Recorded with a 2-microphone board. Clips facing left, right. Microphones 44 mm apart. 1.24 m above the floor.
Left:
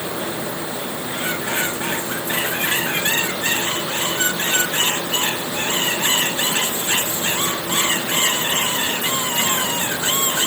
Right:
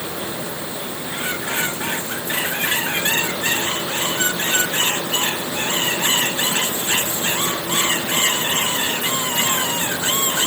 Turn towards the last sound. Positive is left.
No sound to turn to.